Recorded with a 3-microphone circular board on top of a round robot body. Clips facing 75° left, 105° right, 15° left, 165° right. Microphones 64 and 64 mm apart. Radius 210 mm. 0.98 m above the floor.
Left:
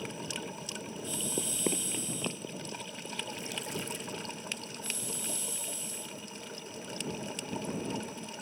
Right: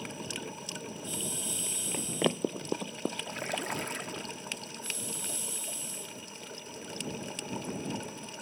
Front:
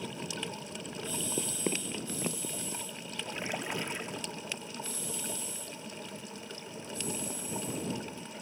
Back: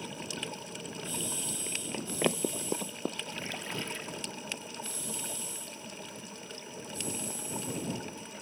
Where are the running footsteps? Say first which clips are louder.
Left 6 dB, front 6 dB; 55° left; by 3.2 s 125° right.